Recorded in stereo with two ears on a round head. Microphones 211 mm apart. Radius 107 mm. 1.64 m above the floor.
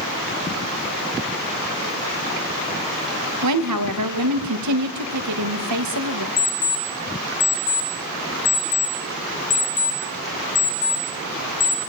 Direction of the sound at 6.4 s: 40° left (ahead or behind).